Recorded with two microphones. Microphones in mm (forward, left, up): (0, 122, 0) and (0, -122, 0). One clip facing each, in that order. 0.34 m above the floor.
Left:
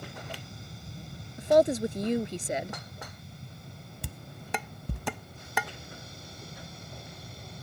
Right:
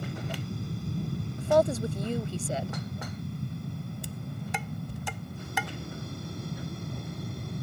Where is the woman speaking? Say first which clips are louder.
Left 2 dB; 20° left (ahead or behind).